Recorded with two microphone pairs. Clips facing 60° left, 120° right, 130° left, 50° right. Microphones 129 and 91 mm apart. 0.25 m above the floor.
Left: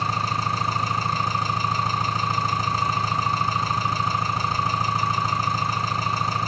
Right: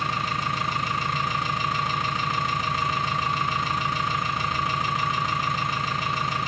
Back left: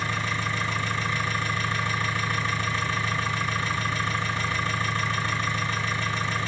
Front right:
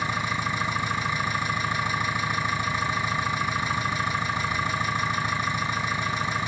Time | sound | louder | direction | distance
0.0 | an engine running | left 2 dB, front right 1 dB | 15° left | 1.8 m